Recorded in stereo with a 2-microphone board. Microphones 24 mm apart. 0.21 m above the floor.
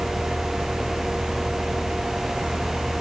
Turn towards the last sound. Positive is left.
No sound to turn to.